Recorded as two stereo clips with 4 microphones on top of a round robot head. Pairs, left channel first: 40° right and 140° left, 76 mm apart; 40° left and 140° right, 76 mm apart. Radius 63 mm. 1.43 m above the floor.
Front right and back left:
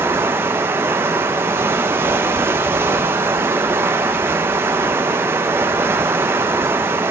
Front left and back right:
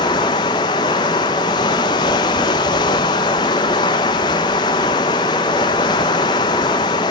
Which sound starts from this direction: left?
Running water, at 0.0 s.